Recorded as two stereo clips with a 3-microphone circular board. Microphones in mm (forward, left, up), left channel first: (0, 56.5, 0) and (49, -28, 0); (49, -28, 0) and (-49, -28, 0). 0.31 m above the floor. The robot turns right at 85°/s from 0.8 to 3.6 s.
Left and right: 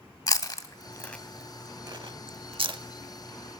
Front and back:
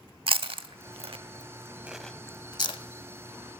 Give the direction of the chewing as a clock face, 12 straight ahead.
6 o'clock.